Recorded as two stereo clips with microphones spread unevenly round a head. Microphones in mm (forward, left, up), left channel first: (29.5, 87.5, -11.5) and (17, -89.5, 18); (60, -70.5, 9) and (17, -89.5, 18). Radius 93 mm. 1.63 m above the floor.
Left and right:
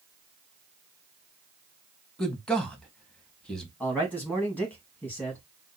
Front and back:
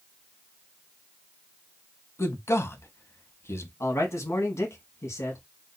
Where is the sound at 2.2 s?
Straight ahead, 1.2 m.